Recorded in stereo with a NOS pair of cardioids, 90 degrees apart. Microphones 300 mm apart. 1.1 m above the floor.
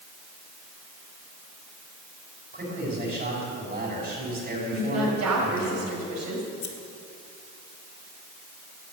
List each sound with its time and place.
2.5 s a man speaking: 30° right, 5.5 m
4.7 s a woman speaking: 60° right, 5 m
6.6 s scissors: 65° left, 2 m